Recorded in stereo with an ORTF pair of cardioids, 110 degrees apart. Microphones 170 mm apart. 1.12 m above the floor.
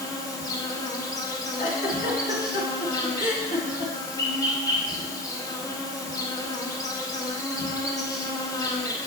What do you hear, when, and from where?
0.0 s an insect: 20° left, 1.4 m
1.6 s a giggle: 55° left, 2.5 m